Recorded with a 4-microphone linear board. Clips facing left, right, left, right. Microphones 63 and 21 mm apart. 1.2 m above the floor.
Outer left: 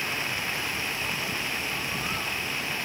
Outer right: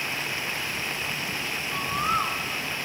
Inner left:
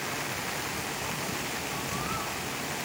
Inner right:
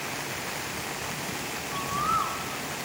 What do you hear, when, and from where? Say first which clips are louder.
1.6 s a bird: outer right 4 dB, inner right 4 dB; 70° right (ahead or behind), 1.0 m